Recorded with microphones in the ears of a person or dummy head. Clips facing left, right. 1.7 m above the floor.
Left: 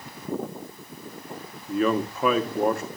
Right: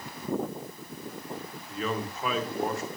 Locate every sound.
1.7 s a man speaking: 65° left (ahead or behind), 1.3 m